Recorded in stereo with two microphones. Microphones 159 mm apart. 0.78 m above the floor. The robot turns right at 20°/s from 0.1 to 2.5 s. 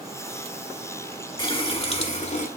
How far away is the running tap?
About 1.5 m.